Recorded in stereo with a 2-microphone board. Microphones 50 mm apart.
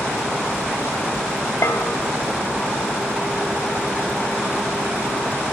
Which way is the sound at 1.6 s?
70° left (ahead or behind).